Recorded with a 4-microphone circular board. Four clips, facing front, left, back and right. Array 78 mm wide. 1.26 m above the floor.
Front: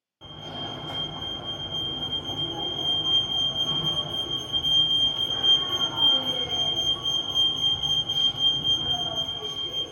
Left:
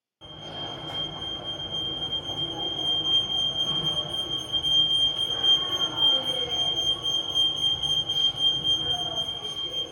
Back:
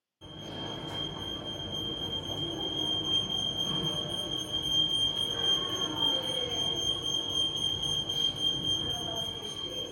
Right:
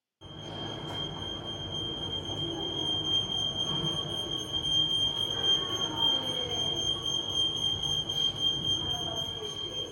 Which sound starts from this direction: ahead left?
A fire alarm, at 0.2 s.